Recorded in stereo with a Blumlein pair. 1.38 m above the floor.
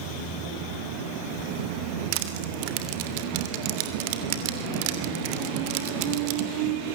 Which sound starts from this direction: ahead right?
Crushing, at 2.1 s.